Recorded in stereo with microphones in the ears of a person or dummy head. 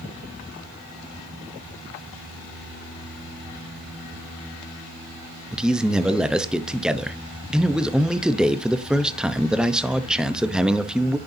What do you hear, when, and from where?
5.5 s a man speaking: centre (ahead or behind), 0.9 m